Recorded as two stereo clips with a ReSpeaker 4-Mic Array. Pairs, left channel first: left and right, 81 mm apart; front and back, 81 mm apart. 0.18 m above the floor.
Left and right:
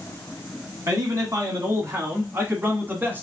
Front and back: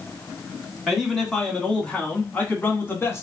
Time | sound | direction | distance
0.9 | a man speaking | 90° right | 2.0 m